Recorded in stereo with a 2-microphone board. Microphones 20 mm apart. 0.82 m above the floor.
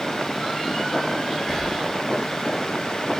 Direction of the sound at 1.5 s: 35° left (ahead or behind).